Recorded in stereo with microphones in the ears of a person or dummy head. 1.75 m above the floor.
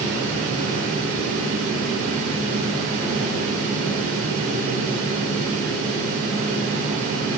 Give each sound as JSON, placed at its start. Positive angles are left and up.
{"t": 0.0, "sound": "a fan", "side_deg": -50, "distance_m": 2.0}